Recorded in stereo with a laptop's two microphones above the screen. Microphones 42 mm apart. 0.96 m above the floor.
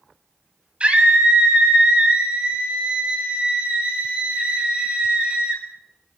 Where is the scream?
25° right (ahead or behind), 7.5 m.